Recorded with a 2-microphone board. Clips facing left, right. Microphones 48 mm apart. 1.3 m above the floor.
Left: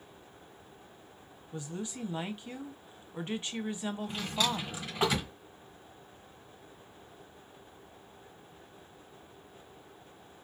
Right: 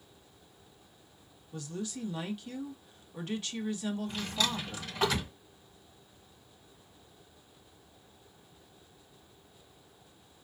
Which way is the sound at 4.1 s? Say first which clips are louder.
Left 4 dB; 10° left (ahead or behind).